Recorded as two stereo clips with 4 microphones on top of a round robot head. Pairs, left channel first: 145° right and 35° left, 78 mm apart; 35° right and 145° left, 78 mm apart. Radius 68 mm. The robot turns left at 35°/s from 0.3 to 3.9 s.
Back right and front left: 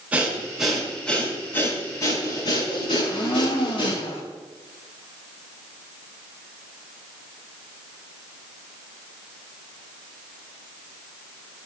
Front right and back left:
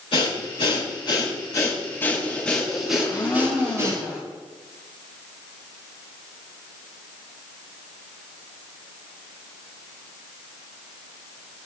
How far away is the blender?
About 4 m.